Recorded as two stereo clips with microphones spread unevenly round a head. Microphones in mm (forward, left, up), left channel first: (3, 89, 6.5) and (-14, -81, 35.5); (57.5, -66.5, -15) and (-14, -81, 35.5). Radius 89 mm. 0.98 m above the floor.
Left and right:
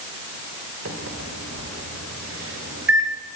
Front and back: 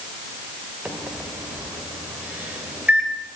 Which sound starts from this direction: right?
A microwave, at 0.8 s.